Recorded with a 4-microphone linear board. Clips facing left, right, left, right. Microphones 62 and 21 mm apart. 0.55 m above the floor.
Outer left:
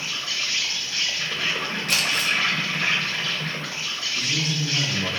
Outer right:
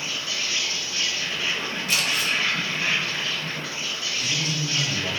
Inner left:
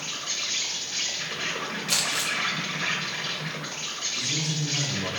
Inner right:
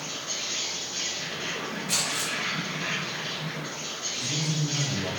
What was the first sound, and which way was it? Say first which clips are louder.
An insect: even, inner left 2 dB; 60° left (ahead or behind).